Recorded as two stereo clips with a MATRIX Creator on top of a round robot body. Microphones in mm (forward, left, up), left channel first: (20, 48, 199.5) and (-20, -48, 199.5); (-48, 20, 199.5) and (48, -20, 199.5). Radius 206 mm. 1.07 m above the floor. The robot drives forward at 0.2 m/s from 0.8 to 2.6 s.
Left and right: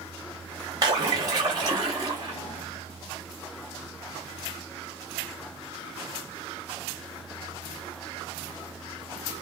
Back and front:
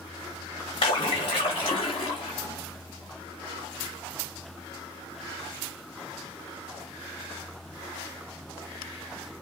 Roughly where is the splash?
Behind.